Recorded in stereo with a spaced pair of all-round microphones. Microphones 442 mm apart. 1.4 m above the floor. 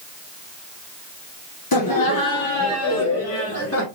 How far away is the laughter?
About 0.9 m.